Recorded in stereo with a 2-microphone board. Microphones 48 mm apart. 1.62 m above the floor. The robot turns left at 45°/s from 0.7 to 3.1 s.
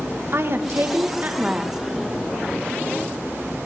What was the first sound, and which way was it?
A woman speaking, 120° right.